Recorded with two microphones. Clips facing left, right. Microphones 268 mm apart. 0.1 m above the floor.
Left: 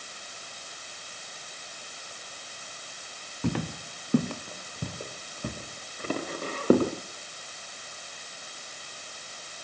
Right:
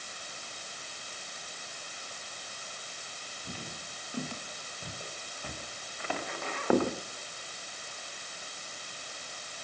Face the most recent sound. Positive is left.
turn(degrees=40)  # may be behind; listen again after turning